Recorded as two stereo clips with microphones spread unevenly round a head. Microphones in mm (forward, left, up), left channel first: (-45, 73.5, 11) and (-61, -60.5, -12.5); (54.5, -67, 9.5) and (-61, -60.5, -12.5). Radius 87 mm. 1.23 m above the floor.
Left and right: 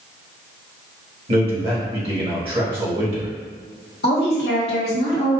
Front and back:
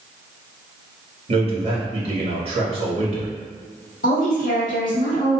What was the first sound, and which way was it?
A man speaking, 145° right.